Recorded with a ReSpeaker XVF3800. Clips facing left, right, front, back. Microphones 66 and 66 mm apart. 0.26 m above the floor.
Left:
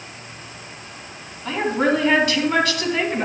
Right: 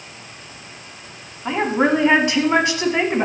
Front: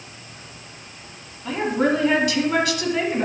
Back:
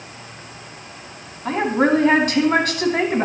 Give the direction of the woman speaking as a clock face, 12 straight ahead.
5 o'clock.